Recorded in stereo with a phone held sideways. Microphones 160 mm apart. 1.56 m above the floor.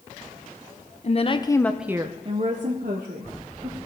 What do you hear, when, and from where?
1.0 s a woman speaking: 45° left (ahead or behind), 0.9 m; by 3.8 s 75° right (ahead or behind), 1.8 m